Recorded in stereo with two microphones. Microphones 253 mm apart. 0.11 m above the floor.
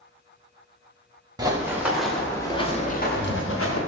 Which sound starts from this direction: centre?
Running footsteps, at 1.4 s.